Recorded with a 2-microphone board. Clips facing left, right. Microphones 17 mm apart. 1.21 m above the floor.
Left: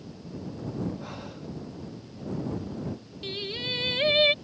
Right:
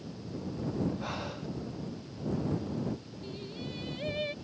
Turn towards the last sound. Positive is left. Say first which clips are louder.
# left 11 dB
turn(degrees=75)  # may be behind; listen again after turning